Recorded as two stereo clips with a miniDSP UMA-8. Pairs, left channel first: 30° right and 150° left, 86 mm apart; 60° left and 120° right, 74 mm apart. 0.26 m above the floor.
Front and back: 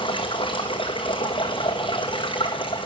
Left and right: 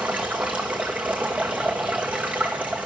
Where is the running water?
50° right, 1.7 m.